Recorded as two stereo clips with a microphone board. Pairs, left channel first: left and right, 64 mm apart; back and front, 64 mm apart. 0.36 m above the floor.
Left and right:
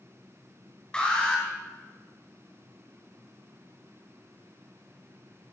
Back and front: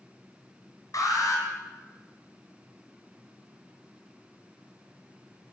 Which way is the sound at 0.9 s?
170° left.